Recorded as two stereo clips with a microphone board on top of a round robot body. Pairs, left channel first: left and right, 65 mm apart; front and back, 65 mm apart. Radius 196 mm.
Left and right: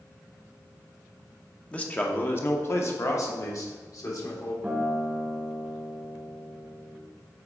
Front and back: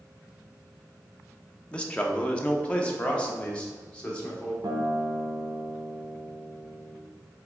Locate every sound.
1.7 s a man speaking: 45° left, 1.2 m; by 4.5 s 70° left, 2.5 m
4.6 s a guitar: 160° right, 1.1 m